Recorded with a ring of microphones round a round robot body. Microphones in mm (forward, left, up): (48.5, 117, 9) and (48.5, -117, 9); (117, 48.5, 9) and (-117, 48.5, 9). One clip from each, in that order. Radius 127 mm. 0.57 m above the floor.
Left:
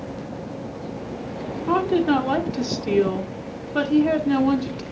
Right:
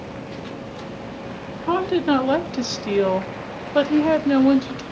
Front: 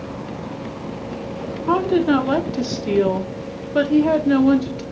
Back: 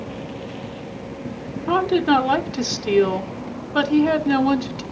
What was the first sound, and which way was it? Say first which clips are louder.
A woman speaking: even, even; 130° right.